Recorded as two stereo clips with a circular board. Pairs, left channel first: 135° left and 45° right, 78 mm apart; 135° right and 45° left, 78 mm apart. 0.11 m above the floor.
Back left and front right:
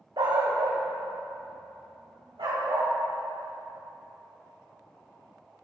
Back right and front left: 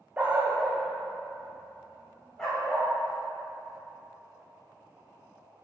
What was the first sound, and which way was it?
A dog barking, 25° right.